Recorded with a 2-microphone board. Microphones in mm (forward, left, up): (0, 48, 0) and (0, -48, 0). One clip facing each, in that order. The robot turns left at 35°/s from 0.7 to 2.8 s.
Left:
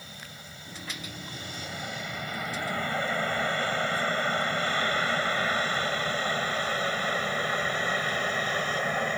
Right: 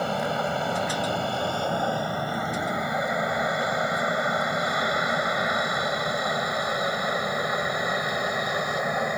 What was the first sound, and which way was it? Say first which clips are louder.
An aircraft: right 22 dB; 70° right (ahead or behind).